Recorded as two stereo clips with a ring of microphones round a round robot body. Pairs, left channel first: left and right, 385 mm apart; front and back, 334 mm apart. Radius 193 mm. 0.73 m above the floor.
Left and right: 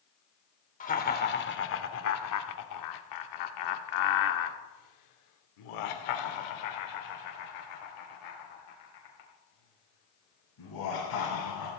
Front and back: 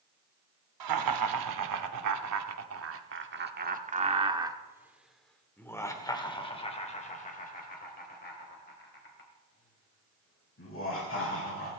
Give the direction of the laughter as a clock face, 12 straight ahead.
7 o'clock.